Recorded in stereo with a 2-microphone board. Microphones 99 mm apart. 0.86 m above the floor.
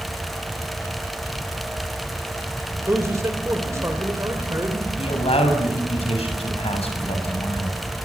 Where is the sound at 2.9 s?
30° right (ahead or behind), 3 m.